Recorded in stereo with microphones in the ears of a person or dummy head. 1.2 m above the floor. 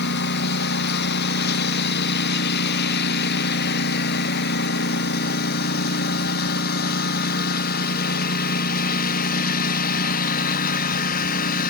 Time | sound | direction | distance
0.0 | a lawn mower | 60° left (ahead or behind) | ?